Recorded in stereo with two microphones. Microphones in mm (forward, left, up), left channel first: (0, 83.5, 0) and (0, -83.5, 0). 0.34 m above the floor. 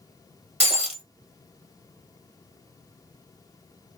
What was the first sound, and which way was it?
Breaking glass, 40° right (ahead or behind).